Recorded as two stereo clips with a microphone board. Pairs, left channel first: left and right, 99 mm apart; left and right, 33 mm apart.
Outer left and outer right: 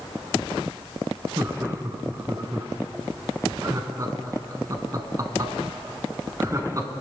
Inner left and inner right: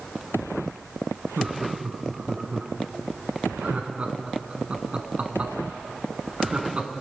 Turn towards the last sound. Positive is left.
turn(degrees=-35)  # may be behind; listen again after turning